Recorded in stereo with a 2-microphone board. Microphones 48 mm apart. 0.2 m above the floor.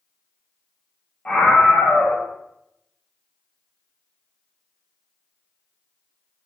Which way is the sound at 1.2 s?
25° left (ahead or behind).